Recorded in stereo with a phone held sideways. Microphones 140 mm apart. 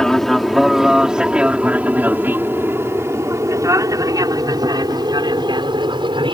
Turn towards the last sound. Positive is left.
turn(degrees=-35)  # may be behind; listen again after turning